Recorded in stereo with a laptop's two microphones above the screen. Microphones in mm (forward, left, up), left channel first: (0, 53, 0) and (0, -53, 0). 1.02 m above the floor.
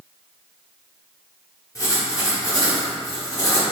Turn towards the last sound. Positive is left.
turn(degrees=30)  # may be behind; listen again after turning